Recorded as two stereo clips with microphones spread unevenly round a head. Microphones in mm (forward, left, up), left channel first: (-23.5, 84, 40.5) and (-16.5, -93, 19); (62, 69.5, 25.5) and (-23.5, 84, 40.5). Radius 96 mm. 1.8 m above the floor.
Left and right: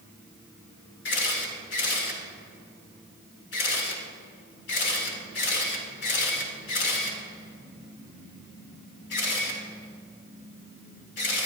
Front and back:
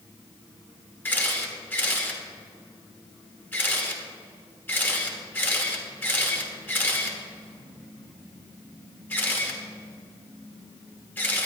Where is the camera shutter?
60° left, 2.5 m.